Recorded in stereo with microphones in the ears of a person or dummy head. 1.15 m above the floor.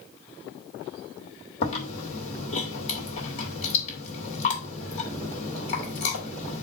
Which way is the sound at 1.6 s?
40° left (ahead or behind).